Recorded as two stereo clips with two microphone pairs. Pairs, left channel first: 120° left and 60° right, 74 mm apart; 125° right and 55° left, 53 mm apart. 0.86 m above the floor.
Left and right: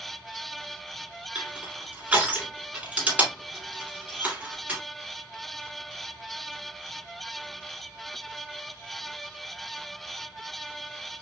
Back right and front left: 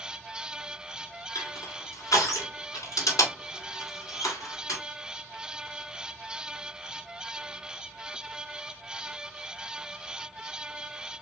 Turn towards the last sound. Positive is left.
turn(degrees=-130)